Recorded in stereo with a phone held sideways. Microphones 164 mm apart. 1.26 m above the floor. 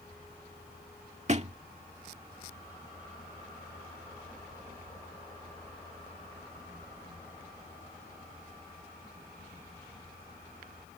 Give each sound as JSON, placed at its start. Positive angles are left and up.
{"t": 1.3, "sound": "a thud", "side_deg": -45}